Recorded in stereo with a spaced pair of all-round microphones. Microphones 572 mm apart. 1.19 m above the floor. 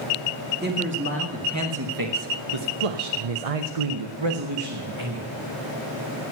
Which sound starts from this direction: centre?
A man speaking, at 0.6 s.